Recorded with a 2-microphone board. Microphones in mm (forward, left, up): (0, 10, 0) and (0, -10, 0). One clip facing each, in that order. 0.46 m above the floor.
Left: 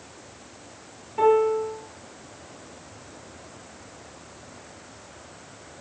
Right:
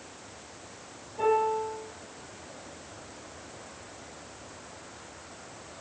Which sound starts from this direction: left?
A piano, at 1.2 s.